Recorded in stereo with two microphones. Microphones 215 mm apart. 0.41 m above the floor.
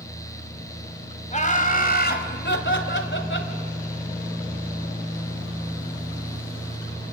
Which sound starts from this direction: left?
Laughter, at 1.3 s.